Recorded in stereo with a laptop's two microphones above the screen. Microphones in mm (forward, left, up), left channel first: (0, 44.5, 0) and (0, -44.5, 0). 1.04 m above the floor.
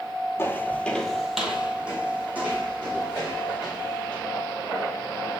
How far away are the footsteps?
About 1.2 m.